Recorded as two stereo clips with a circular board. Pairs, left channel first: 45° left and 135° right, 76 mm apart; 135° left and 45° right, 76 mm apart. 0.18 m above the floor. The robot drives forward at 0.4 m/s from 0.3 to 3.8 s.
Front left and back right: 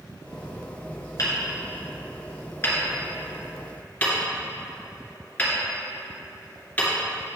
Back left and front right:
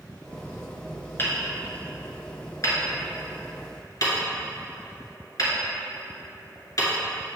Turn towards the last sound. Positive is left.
turn(degrees=110)